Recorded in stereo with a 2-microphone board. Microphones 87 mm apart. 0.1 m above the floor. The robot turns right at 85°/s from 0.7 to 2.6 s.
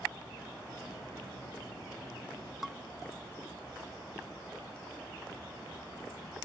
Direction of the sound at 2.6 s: Centre (ahead or behind).